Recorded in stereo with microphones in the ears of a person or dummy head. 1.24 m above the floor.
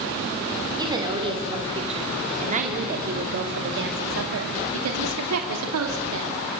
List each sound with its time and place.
0.8 s a woman speaking: 25° right (ahead or behind), 3 m; by 6.4 s 75° right (ahead or behind), 2.5 m